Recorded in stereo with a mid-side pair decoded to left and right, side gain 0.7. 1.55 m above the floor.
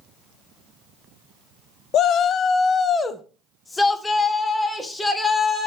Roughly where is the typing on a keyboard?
I don't hear typing on a keyboard.